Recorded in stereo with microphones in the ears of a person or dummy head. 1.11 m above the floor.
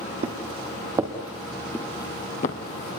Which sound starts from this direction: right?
Footsteps, at 0.2 s.